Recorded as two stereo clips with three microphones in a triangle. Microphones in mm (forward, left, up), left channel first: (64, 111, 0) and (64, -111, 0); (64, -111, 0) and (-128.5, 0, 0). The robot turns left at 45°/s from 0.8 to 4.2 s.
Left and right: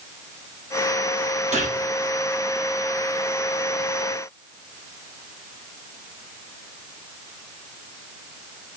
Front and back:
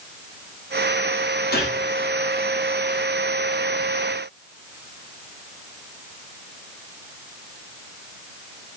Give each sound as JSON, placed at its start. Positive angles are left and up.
{"t": 1.5, "sound": "a gunshot", "azimuth_deg": -45, "distance_m": 1.2}